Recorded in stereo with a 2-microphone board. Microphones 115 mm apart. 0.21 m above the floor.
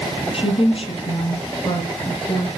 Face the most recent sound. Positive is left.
turn(degrees=35)  # may be behind; listen again after turning